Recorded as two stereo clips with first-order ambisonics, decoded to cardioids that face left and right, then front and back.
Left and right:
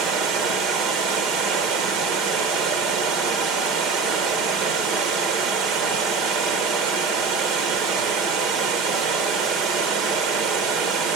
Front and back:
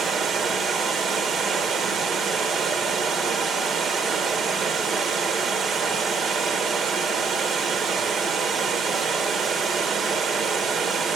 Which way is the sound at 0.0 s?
125° right.